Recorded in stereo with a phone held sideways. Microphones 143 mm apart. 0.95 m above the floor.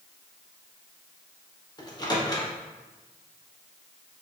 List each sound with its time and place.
1.8 s a microwave: 30° left (ahead or behind), 0.9 m